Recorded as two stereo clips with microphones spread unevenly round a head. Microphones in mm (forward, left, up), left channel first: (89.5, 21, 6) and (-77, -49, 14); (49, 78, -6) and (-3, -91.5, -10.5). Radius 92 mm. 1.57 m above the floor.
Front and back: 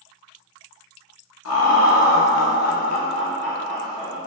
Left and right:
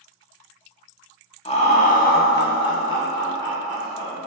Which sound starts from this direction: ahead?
Laughter, at 1.4 s.